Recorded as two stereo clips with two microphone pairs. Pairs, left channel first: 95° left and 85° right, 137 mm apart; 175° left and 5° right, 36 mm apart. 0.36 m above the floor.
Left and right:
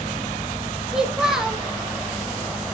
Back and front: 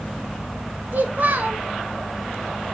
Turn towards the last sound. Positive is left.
turn(degrees=-5)